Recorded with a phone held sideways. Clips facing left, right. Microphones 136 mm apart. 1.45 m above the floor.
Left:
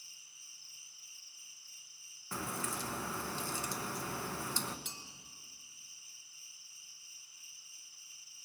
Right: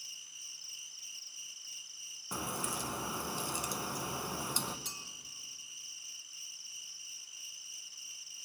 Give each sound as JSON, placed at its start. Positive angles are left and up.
{"t": 0.0, "sound": "an insect", "side_deg": -85, "distance_m": 0.7}
{"t": 2.3, "sound": "a crack", "side_deg": -15, "distance_m": 0.8}
{"t": 4.8, "sound": "a clink", "side_deg": -40, "distance_m": 1.0}